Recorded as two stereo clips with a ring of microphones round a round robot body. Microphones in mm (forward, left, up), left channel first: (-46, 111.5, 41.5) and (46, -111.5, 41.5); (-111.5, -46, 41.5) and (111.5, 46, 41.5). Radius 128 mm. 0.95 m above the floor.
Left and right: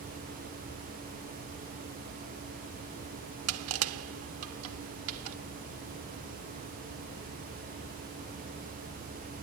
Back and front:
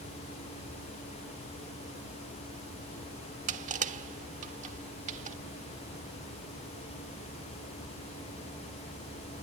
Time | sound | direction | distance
3.5 | crushing | 40° right | ?